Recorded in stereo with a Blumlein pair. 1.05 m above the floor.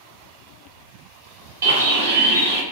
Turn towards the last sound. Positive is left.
turn(degrees=-60)